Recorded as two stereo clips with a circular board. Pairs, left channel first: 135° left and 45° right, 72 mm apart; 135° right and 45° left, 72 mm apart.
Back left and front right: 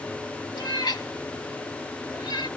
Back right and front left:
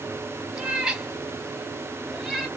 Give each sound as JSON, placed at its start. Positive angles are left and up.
{"t": 0.6, "sound": "a cat meowing", "azimuth_deg": 125, "distance_m": 1.5}